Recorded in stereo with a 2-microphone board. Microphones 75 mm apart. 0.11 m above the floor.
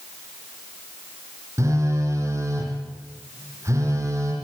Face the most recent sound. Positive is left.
turn(degrees=-40)  # may be behind; listen again after turning